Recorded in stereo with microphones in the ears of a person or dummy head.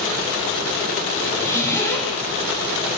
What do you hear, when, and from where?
1.2 s a zipper: 15° left (ahead or behind), 1.5 m